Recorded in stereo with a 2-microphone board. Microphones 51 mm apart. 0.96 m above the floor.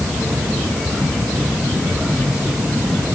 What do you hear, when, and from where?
Only background noise.